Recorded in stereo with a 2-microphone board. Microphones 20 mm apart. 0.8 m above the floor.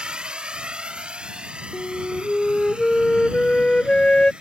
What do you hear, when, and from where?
0.0 s a drone: 65° right (ahead or behind); by 4.4 s 70° right (ahead or behind)
1.7 s a flute: 50° left (ahead or behind)